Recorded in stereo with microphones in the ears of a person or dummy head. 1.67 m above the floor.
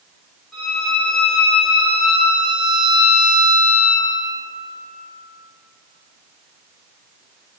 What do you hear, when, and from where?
0.5 s a violin: centre (ahead or behind), 1.1 m